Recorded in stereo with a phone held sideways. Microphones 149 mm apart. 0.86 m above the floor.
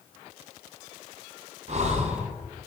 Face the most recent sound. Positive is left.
turn(degrees=-50)  # may be behind; listen again after turning